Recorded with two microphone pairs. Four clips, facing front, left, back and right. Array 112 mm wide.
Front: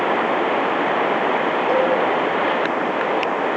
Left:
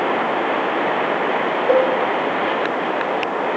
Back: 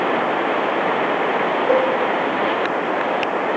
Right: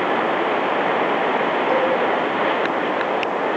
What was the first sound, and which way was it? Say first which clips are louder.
A cowbell: left 6 dB, back 2 dB; 115° left.